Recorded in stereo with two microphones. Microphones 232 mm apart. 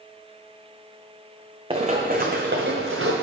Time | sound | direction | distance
1.7 | running footsteps | 25° right (ahead or behind) | 0.8 m